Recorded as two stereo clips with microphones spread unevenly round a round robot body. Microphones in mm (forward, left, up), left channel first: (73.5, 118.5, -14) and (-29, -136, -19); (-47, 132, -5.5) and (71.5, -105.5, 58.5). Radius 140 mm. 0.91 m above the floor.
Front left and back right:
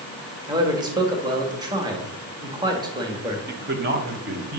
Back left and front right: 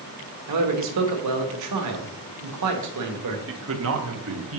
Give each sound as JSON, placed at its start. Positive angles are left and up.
{"t": 0.5, "sound": "a man speaking", "azimuth_deg": -35, "distance_m": 1.1}
{"t": 3.5, "sound": "a man speaking", "azimuth_deg": -85, "distance_m": 0.9}